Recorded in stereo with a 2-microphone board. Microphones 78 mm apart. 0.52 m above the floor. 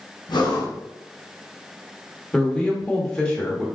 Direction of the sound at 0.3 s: 70° left (ahead or behind).